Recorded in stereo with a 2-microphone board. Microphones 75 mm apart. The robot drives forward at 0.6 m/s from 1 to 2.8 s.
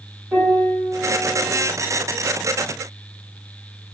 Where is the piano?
25° right (ahead or behind), 2 m; by 1.6 s 30° right (ahead or behind), 1.8 m.